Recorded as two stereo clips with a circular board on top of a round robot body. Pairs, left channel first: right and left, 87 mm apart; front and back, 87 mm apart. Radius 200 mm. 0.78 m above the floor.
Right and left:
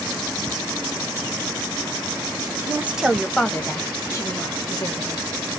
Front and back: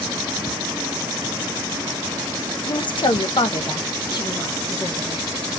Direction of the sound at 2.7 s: 30° left.